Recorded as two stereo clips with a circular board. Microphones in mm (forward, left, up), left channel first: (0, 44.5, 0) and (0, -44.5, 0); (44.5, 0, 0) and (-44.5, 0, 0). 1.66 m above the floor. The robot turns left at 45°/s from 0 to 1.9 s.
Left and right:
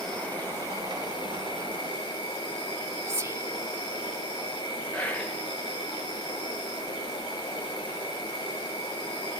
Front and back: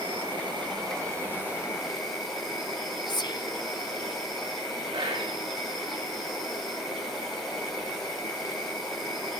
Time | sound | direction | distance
0.0 | an insect | 175° left | 5 m
3.1 | whispering | 30° right | 0.5 m
4.9 | whispering | 160° left | 2.5 m